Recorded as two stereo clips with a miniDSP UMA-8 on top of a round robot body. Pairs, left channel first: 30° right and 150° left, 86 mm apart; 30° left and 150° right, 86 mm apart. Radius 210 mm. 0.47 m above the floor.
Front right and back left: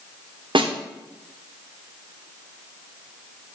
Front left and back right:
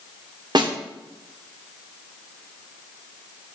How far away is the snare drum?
About 1.3 m.